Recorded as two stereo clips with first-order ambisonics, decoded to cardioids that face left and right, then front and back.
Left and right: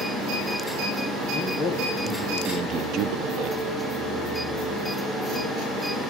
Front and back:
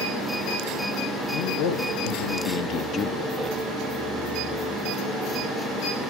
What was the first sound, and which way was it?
A man speaking, 20° left.